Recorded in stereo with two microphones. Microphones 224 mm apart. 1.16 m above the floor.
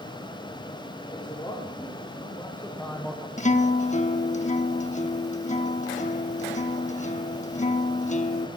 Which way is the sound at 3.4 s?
30° left (ahead or behind).